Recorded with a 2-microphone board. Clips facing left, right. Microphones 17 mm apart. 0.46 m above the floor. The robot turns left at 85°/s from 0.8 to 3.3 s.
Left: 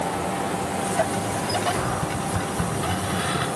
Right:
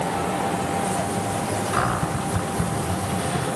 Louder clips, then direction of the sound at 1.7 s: Right 3 dB; 115° right.